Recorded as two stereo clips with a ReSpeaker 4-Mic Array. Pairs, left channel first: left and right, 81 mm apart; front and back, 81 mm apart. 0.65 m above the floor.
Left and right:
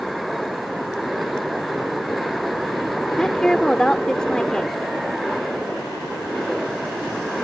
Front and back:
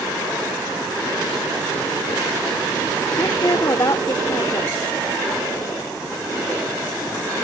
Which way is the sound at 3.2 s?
10° left.